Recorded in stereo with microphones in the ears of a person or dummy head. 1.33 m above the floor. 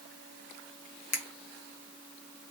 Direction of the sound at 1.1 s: 45° left (ahead or behind).